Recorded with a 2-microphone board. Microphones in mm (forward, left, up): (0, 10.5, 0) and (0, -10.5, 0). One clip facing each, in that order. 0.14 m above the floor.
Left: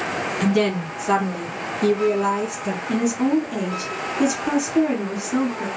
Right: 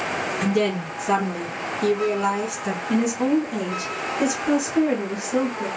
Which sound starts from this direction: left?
A woman speaking, at 0.4 s.